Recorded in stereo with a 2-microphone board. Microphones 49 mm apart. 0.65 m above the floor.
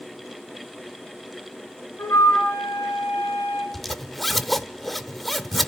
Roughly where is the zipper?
Centre.